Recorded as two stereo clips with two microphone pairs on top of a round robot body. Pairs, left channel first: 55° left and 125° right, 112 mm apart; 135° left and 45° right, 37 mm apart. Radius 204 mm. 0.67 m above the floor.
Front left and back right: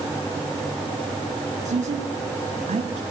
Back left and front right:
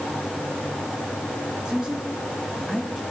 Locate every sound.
1.6 s a woman speaking: 115° right, 6 m; by 3.0 s 120° right, 5 m